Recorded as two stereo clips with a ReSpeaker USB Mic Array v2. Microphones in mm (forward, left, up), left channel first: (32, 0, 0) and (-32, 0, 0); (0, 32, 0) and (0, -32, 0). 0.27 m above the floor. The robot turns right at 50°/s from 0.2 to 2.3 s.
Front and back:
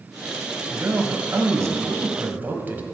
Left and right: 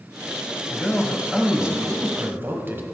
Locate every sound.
0.7 s a man speaking: 150° left, 1.1 m; by 2.8 s 130° right, 1.1 m